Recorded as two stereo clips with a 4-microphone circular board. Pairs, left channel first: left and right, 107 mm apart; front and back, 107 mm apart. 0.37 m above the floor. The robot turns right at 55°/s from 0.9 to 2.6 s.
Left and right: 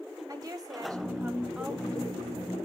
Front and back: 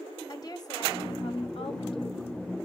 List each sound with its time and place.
0.3 s a woman speaking: 45° right, 2.5 m; by 2.2 s 30° left, 2.5 m